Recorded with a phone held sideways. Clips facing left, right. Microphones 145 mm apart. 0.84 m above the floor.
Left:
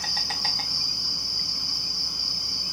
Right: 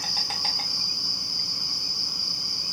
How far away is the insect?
About 1.1 m.